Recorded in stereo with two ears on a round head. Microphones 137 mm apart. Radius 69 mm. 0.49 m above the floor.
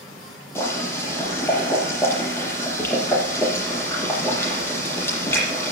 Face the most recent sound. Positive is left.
turn(degrees=15)  # may be behind; listen again after turning